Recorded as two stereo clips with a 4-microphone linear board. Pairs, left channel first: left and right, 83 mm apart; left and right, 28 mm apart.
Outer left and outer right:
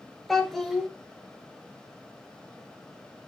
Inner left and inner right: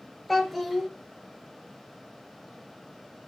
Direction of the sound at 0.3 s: 5° left (ahead or behind).